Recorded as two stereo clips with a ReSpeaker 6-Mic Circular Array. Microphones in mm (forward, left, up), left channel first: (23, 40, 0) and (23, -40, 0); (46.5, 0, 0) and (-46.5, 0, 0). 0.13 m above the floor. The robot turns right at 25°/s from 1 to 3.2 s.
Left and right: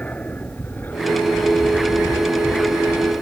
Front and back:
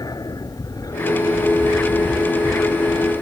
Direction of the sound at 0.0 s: 25° left.